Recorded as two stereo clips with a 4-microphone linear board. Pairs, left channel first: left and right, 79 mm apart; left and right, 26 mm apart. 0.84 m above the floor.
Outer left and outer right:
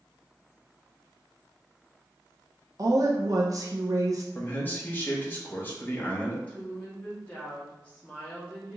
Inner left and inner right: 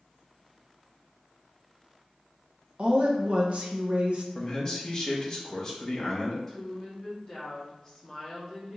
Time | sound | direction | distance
2.8 | a woman speaking | 50° right (ahead or behind) | 0.7 m
4.3 | a man speaking | 25° left (ahead or behind) | 1.1 m
6.5 | a woman speaking | 20° left (ahead or behind) | 1.7 m